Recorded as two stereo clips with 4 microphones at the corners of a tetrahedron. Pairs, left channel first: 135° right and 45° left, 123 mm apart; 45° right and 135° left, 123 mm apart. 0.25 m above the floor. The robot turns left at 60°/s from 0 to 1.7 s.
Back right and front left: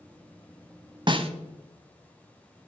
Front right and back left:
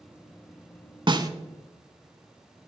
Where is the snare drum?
90° left, 0.8 m; by 1.3 s 75° left, 0.8 m.